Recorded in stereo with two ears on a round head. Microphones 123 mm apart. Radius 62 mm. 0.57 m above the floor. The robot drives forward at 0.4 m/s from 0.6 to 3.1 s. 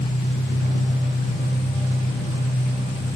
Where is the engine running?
70° left (ahead or behind), 1.4 m; by 3.2 s 45° left (ahead or behind), 2.0 m.